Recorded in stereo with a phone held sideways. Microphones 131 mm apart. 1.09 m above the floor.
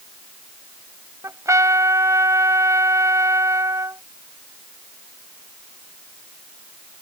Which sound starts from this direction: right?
A trumpet, at 1.2 s.